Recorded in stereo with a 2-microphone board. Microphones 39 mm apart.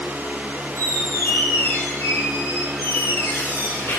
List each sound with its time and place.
0.8 s a squeak: 70° left (ahead or behind), 5 m